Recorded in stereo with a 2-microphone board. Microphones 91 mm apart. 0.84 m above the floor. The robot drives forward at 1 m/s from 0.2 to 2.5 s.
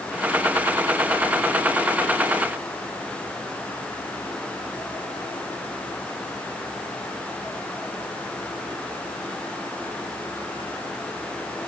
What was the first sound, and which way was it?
Only background noise.